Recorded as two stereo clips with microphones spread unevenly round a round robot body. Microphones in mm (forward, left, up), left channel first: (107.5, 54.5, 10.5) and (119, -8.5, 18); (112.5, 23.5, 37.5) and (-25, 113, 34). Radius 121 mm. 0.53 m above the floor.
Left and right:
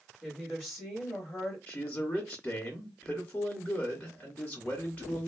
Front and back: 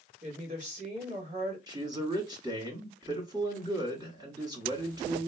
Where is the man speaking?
95° left, 1.4 m.